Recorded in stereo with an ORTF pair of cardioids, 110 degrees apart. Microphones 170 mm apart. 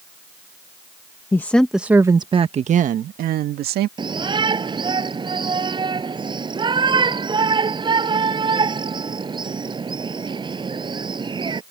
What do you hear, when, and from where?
1.3 s a woman speaking: 15° left; by 3.9 s 70° right
4.0 s a shout: 25° right